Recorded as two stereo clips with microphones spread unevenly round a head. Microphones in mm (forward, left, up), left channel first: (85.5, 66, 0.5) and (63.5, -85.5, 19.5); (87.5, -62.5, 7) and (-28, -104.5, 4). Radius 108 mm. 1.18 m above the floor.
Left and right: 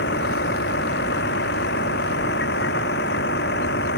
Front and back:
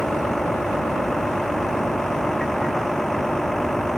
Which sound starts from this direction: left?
A vehicle, at 0.0 s.